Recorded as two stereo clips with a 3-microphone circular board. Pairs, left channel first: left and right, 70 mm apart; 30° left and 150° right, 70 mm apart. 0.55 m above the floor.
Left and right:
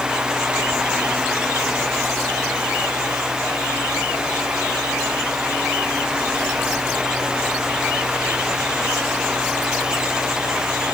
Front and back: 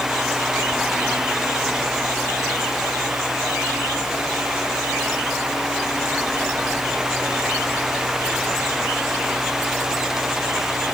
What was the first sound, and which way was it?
Only background noise.